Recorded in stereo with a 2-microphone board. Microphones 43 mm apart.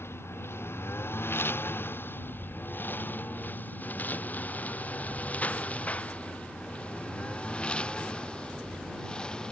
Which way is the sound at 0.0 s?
65° left (ahead or behind).